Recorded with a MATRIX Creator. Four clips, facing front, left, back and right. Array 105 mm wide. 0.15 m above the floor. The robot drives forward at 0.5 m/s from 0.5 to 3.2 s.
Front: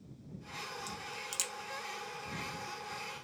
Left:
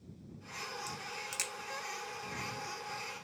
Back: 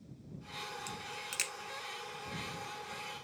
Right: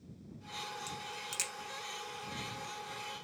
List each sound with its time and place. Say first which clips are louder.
0.9 s a crack: even, even; 175° left, 0.9 m